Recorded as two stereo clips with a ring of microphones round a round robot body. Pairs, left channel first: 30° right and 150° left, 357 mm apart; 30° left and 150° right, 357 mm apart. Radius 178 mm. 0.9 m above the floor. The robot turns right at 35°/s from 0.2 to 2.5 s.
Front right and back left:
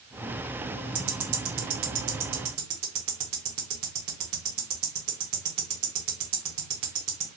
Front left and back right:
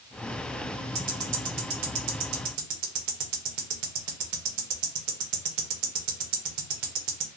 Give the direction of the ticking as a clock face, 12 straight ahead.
7 o'clock.